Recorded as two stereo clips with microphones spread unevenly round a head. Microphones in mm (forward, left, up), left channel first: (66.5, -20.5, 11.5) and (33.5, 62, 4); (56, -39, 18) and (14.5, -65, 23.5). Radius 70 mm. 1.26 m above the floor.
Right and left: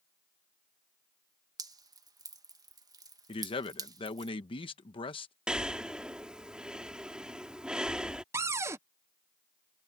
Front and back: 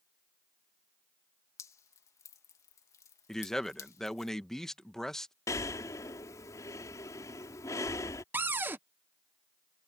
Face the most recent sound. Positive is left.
turn(degrees=165)